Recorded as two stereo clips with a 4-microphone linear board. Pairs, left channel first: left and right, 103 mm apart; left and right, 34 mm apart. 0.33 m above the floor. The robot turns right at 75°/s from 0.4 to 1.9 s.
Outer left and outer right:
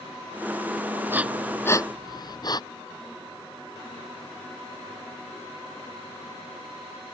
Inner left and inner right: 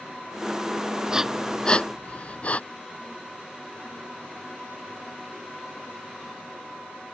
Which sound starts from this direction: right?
Breathing, at 1.1 s.